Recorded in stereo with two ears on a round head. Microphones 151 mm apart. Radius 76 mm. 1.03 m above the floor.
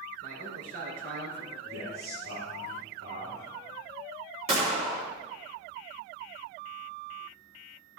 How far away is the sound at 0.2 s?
About 3.5 m.